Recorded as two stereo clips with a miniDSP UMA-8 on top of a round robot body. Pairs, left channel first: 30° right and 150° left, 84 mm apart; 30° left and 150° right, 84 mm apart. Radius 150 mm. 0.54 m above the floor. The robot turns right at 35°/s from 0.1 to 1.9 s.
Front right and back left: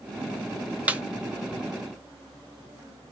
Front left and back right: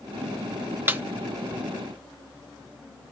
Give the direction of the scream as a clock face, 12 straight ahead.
I don't hear a scream.